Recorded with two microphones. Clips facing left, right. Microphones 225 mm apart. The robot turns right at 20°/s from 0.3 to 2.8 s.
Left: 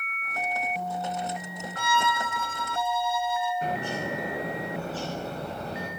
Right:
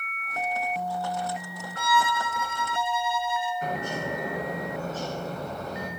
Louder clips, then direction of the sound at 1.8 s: Right 2 dB; 20° left (ahead or behind).